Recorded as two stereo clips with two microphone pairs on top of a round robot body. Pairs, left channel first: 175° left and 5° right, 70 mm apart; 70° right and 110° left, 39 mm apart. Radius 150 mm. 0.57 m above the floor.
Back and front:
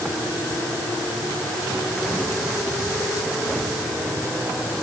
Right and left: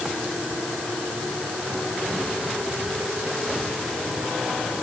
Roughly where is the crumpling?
No crumpling in this recording.